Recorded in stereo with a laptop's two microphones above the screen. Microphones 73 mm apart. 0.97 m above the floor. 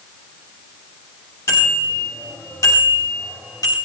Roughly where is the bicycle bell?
Left.